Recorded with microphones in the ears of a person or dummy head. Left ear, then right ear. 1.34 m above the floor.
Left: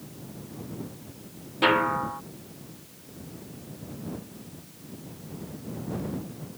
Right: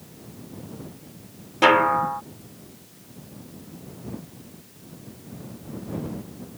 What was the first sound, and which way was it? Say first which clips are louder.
A snare drum: right 6 dB; 20° right (ahead or behind).